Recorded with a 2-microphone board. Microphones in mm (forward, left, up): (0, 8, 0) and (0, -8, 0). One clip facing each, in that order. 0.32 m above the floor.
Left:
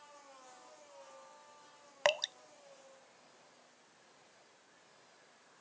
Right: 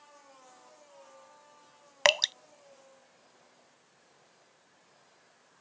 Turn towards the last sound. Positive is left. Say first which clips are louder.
# right 8 dB
turn(degrees=-80)